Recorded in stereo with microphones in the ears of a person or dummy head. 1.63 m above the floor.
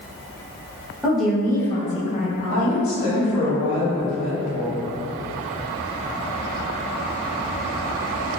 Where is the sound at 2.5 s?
55° left (ahead or behind), 1.4 m.